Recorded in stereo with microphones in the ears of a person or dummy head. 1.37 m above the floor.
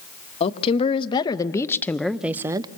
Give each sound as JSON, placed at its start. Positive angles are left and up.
{"t": 0.4, "sound": "a woman speaking", "side_deg": 35, "distance_m": 1.4}